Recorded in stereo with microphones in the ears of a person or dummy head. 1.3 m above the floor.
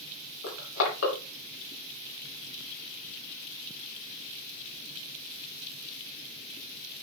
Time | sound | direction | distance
0.4 | crushing | 70° left (ahead or behind) | 3.5 m